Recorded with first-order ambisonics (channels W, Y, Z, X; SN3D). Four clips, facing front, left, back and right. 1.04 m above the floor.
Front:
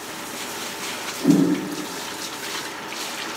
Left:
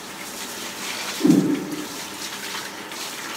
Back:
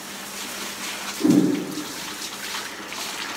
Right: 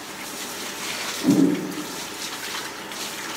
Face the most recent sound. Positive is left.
turn(degrees=100)